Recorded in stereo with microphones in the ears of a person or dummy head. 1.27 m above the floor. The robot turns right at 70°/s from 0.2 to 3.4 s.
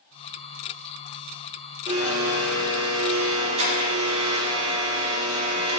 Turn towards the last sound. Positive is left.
turn(degrees=-35)